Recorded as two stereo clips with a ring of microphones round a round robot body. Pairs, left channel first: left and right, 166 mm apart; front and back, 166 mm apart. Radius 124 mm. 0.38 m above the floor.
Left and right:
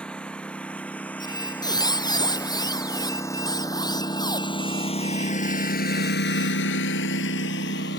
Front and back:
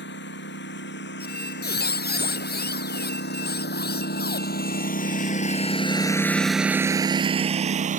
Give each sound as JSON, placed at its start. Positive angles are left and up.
{"t": 0.0, "sound": "a lawn mower", "azimuth_deg": 5}
{"t": 1.2, "sound": "a squeak", "azimuth_deg": 25}